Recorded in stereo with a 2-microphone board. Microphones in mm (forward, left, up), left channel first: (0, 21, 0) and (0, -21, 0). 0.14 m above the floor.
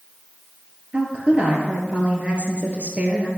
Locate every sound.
0.9 s a woman speaking: 30° right (ahead or behind), 2 m